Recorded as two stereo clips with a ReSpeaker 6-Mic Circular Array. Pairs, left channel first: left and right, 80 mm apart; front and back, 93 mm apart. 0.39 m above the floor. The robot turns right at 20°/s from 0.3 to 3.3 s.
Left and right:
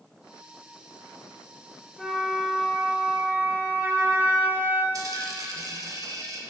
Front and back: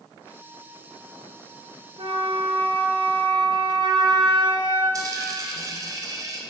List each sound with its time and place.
2.0 s a flute: 175° left, 0.9 m; by 4.8 s 155° right, 0.9 m
4.9 s a dropped coin: 130° right, 0.9 m